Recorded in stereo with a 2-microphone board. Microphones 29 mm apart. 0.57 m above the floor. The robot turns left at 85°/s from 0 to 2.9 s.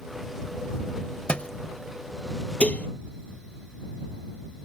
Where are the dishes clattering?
50° left (ahead or behind); by 2.9 s 75° left (ahead or behind).